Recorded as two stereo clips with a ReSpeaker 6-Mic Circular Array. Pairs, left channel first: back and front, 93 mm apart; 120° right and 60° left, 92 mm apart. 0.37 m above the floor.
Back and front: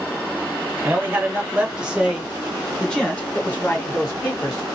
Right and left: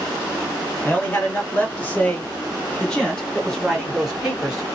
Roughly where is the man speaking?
Ahead right.